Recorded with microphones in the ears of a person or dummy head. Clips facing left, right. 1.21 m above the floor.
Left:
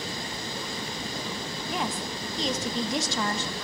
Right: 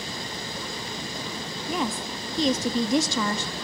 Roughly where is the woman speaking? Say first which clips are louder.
Right 3 dB; right.